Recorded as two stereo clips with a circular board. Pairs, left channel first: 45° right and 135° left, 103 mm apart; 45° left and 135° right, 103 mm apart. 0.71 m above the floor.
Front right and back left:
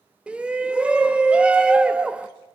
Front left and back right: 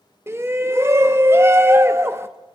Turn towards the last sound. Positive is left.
turn(degrees=-160)